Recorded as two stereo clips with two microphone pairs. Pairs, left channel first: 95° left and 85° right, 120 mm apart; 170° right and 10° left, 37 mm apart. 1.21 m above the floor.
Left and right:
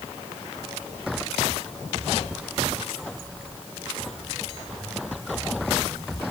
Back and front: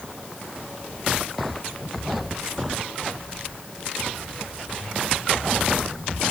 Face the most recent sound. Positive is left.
No sound to turn to.